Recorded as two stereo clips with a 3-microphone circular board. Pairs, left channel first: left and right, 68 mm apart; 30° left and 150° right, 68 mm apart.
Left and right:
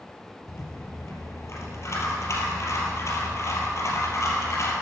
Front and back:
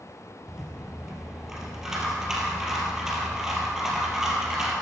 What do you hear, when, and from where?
0.5 s a rattle: 130° left, 3 m